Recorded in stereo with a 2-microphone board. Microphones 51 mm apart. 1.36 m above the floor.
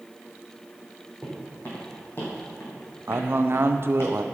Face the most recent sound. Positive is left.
turn(degrees=-55)  # may be behind; listen again after turning